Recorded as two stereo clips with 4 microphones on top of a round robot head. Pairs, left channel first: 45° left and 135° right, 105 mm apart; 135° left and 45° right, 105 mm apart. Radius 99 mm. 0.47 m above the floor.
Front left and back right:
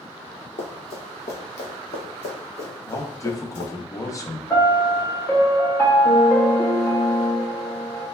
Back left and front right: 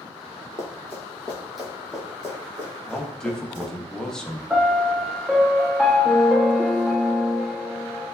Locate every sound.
0.6 s running footsteps: 70° left, 1.0 m; by 3.7 s 25° left, 2.5 m
2.9 s a man speaking: 60° left, 0.8 m
4.5 s a piano: 30° left, 1.2 m